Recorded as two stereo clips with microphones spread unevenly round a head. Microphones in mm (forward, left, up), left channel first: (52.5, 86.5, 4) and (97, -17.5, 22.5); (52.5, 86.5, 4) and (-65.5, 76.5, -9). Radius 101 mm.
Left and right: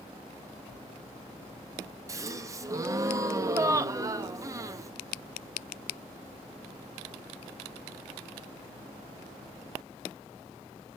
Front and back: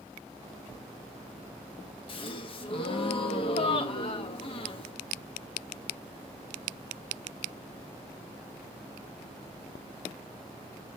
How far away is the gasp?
About 0.7 m.